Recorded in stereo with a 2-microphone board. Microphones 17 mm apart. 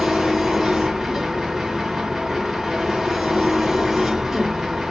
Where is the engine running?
25° right (ahead or behind), 1.6 m.